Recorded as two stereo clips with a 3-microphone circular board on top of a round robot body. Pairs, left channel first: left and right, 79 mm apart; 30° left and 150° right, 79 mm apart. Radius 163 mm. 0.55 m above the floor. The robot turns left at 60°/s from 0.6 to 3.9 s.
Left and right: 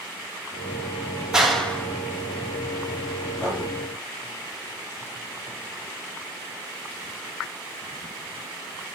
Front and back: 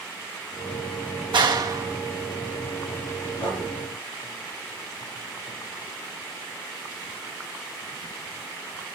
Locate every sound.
1.3 s a clap: 170° right, 3 m; by 3.1 s 80° left, 3 m
3.4 s writing: 35° left, 9.5 m; by 3.6 s 20° left, 9.5 m